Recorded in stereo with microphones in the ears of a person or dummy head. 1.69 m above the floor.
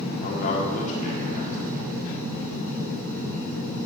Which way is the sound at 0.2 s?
45° left (ahead or behind).